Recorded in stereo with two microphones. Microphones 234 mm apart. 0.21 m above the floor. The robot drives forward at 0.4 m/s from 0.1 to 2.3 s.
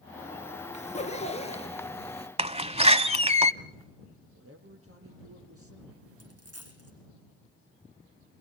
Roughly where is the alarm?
I don't hear an alarm.